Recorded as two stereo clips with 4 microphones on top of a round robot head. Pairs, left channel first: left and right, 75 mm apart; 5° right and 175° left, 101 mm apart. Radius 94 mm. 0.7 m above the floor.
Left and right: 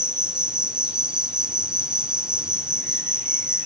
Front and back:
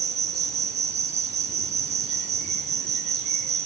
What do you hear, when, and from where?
0.0 s an insect: 170° right, 1.4 m